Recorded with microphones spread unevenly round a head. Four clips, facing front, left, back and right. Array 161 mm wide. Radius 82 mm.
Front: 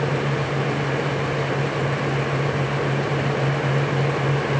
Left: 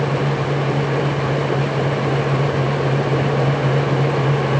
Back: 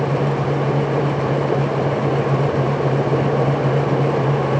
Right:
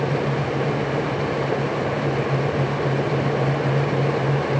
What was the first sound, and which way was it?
Only background noise.